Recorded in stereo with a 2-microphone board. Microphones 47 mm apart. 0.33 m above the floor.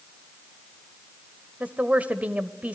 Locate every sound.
1.6 s a woman speaking: 30° right (ahead or behind), 1.2 m